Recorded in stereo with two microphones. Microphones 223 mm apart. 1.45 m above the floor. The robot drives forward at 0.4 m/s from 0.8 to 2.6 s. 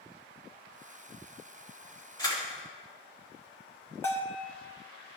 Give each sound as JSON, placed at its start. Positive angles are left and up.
{"t": 2.2, "sound": "a camera shutter", "side_deg": 20, "distance_m": 2.5}
{"t": 4.0, "sound": "a bell", "side_deg": 10, "distance_m": 1.0}